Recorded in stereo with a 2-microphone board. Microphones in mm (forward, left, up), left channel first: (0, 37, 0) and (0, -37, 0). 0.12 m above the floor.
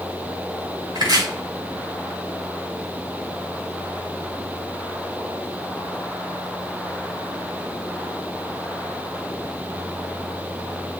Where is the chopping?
75° right (ahead or behind), 6 m.